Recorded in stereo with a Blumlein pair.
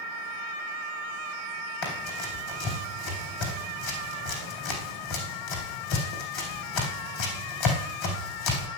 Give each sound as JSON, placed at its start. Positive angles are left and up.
{"t": 1.8, "sound": "running footsteps", "azimuth_deg": 40, "distance_m": 4.0}